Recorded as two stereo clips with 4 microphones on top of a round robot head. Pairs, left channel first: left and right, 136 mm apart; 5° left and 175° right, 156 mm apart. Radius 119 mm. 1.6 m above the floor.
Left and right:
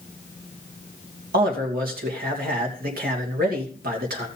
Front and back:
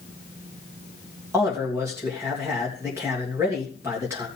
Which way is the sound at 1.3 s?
100° right.